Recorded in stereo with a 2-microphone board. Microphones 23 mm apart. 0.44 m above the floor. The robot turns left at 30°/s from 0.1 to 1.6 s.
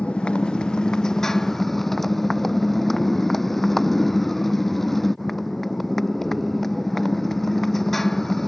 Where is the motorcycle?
55° left; by 8.5 s 10° left.